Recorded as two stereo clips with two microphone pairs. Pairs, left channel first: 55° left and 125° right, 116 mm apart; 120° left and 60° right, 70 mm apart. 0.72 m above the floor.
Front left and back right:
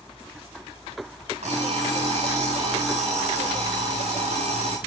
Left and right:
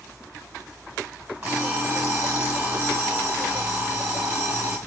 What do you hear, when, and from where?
1.4 s an alarm clock: 110° right, 3 m